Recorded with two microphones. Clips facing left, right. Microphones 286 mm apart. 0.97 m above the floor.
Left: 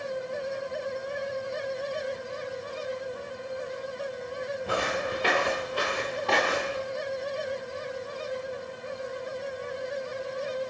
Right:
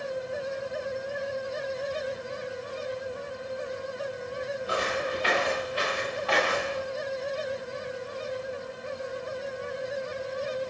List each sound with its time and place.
4.7 s footsteps: 60° left (ahead or behind), 4.5 m; by 6.8 s 45° left (ahead or behind), 5 m